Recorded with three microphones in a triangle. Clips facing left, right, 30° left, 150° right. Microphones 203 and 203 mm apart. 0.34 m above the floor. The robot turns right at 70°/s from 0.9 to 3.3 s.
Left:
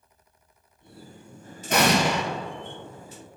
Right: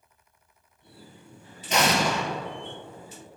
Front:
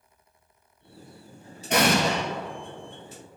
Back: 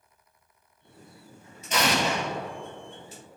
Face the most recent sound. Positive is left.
turn(degrees=165)